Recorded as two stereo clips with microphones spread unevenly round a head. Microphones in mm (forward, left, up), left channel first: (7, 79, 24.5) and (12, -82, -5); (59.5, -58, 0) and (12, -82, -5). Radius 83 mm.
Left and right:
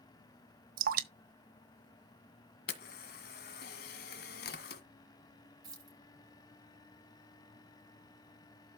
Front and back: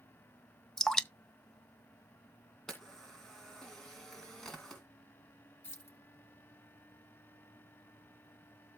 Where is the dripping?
50° right, 1.2 m.